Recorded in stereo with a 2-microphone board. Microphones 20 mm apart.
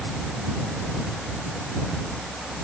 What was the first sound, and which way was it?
Only background noise.